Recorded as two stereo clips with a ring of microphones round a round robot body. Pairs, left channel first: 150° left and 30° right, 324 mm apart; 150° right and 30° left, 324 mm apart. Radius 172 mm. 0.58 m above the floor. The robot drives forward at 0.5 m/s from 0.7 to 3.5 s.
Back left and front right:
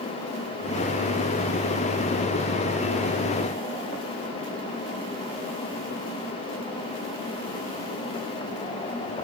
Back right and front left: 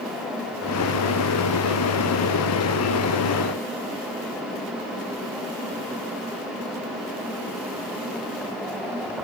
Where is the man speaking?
No man speaking in this recording.